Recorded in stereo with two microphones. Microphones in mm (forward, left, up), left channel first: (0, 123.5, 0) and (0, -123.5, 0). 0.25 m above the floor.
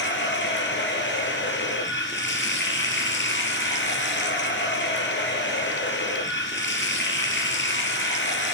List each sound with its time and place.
0.0 s running water: 45° left (ahead or behind), 3 m